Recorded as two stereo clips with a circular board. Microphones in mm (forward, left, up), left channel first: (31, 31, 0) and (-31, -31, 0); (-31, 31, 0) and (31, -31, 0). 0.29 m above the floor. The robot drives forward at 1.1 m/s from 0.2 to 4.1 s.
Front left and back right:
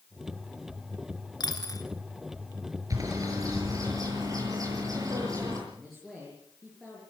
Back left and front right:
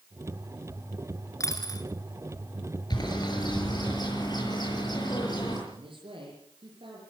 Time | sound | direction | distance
1.4 | a dropped coin | 80° left | 2.5 m
2.9 | a bird | 175° left | 6 m
5.7 | a man speaking | 45° right | 7 m